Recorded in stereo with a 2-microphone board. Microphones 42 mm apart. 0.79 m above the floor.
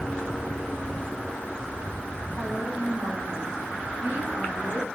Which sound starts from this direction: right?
A woman speaking, at 2.4 s.